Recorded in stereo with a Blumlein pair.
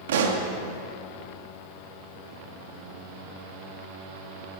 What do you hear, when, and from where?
0.1 s a pop: 60° right, 1.5 m